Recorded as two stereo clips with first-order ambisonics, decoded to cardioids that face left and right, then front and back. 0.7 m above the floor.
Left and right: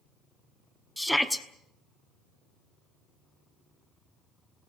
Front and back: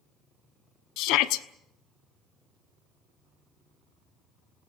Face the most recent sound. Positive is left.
turn(degrees=5)